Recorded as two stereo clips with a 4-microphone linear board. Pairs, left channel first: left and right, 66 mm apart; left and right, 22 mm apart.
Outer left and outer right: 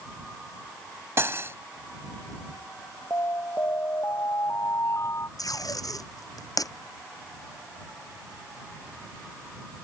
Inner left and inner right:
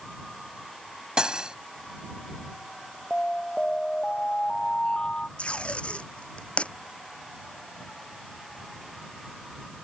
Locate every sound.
1.2 s cutlery clinking: 40° right (ahead or behind)
3.1 s an alarm: 45° left (ahead or behind)
5.4 s tape being pulled: 65° left (ahead or behind)